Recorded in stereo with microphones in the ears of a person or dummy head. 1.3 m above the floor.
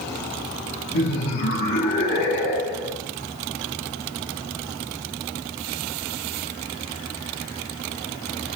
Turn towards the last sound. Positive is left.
turn(degrees=55)  # may be behind; listen again after turning